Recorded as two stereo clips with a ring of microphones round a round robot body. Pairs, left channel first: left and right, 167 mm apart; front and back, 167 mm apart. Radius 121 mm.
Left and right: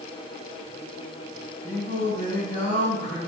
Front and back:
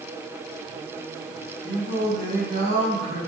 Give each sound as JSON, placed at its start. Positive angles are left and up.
{"t": 1.6, "sound": "singing", "azimuth_deg": -150, "distance_m": 3.5}